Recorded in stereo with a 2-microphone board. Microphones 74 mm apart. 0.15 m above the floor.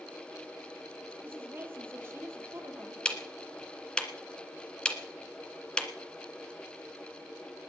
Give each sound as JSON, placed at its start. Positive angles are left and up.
{"t": 1.2, "sound": "a woman speaking", "side_deg": -25, "distance_m": 3.5}
{"t": 3.0, "sound": "ticking", "side_deg": 10, "distance_m": 1.6}